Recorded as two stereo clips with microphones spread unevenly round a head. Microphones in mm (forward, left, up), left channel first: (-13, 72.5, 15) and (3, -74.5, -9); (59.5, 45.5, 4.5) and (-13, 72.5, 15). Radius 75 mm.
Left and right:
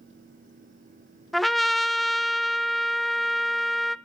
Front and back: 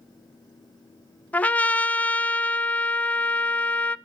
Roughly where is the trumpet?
Ahead left.